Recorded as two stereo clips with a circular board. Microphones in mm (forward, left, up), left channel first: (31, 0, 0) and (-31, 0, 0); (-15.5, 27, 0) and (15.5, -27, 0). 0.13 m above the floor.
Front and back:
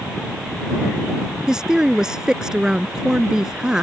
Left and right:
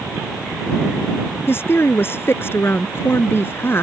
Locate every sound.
1.5 s a woman speaking: 105° left